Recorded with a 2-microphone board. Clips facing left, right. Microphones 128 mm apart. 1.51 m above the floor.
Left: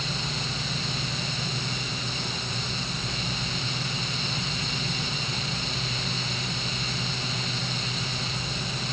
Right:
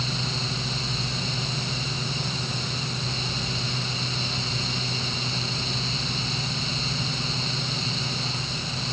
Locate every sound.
Only background noise.